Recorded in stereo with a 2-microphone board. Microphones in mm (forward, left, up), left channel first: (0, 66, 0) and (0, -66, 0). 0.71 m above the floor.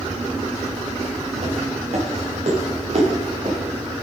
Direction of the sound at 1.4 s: 60° right (ahead or behind).